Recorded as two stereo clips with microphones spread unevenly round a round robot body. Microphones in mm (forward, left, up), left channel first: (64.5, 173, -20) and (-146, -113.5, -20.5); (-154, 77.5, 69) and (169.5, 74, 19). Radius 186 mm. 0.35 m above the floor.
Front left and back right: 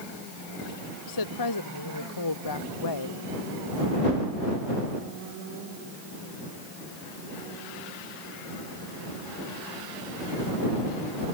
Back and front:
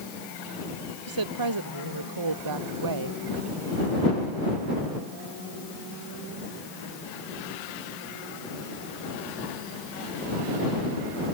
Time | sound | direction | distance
1.1 | a woman speaking | 15° left | ?